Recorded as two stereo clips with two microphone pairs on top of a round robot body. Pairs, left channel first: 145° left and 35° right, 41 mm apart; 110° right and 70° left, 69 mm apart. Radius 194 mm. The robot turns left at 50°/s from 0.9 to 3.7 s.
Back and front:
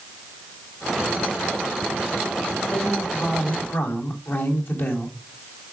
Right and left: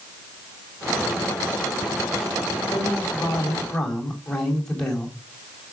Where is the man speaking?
140° right, 4 m; by 5.2 s 170° left, 4 m.